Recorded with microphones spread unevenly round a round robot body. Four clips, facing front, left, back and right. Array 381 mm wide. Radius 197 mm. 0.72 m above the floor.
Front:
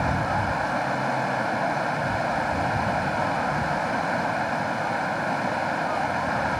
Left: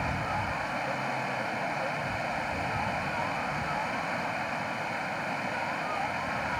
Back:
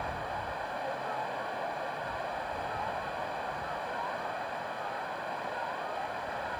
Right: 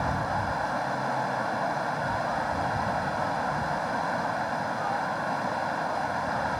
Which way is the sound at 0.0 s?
5° right.